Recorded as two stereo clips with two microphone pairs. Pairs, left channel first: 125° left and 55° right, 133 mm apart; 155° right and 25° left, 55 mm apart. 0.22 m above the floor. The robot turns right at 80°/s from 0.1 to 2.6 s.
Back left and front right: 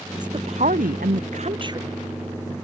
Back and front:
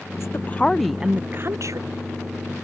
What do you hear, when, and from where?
0.1 s a woman speaking: 120° right; by 1.9 s 20° left